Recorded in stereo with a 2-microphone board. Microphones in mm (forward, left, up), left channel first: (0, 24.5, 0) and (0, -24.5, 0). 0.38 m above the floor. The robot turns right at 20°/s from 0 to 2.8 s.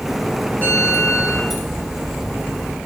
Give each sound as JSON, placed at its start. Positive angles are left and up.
{"t": 0.6, "sound": "a bell", "side_deg": 30, "distance_m": 5.0}